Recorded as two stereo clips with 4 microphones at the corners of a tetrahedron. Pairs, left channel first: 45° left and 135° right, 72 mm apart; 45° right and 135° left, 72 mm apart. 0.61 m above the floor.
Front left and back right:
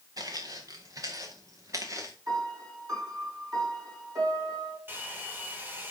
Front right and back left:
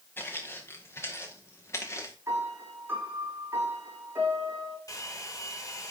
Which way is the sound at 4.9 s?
75° right.